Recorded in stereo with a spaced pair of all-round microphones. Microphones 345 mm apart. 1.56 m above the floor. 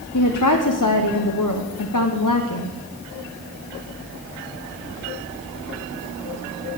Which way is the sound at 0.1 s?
65° left (ahead or behind).